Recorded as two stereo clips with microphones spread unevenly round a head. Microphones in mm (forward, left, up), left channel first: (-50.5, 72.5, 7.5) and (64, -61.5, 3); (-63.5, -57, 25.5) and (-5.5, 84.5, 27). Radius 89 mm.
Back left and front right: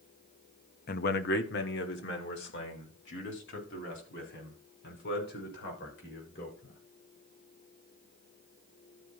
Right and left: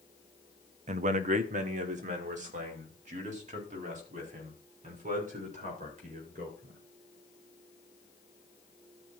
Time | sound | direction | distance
0.9 | a man speaking | 105° left | 0.7 m